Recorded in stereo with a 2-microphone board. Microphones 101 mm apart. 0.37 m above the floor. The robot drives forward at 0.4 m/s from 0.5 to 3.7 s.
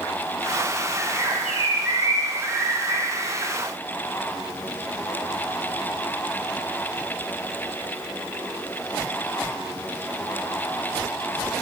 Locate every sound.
1.0 s a bird: 20° right (ahead or behind), 3 m; by 3.5 s 15° right (ahead or behind), 4 m